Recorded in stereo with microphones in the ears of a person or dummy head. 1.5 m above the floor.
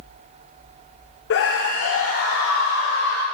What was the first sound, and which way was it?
A scream, 55° left (ahead or behind).